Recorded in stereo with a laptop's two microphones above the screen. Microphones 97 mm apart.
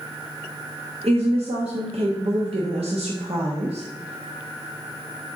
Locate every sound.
1.0 s a woman speaking: 80° right, 1.3 m